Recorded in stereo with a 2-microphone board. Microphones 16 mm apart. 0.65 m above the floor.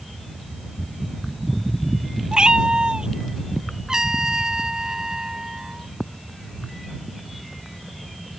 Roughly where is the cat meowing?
Right.